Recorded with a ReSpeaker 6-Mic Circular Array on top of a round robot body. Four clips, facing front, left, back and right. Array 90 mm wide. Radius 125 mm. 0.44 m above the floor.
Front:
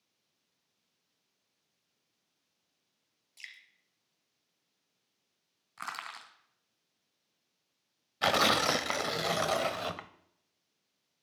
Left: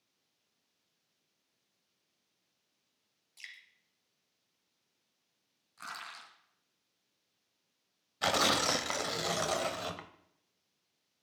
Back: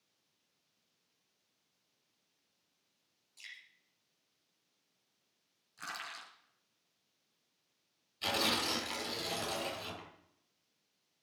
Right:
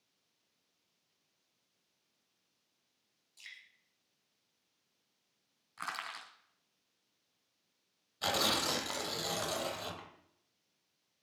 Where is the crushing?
35° right, 2.5 m.